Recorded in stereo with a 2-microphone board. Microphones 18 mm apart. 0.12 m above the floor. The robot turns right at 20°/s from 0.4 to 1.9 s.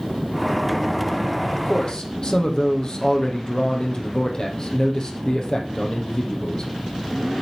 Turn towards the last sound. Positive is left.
turn(degrees=40)  # may be behind; listen again after turning